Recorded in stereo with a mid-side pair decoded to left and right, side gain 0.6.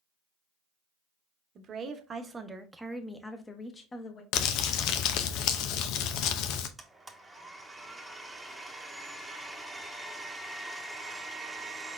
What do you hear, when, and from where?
1.6 s a woman speaking: 50° right, 1.2 m; by 4.2 s 35° left, 1.3 m
4.3 s crumpling: 70° left, 0.7 m
6.8 s a blender: 10° right, 1.1 m